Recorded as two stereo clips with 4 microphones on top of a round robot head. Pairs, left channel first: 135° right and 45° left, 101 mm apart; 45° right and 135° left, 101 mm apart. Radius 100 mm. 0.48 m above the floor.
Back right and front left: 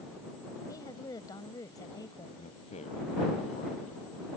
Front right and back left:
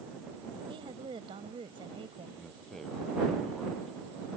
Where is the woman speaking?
170° left.